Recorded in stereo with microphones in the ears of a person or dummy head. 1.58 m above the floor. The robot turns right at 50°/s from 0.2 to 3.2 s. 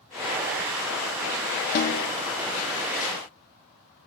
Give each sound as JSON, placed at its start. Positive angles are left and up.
{"t": 1.8, "sound": "a snare drum", "side_deg": 50, "distance_m": 0.8}